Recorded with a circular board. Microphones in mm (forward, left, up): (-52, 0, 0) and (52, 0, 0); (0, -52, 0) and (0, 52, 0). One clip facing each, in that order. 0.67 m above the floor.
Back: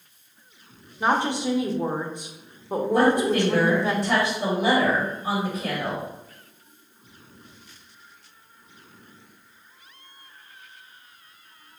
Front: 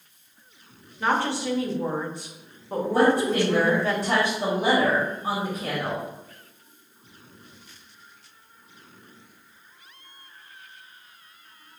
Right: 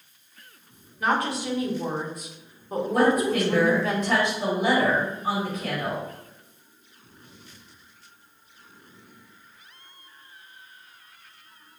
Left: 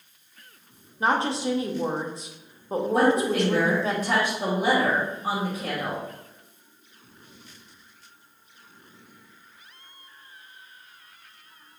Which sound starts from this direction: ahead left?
A woman speaking, at 2.9 s.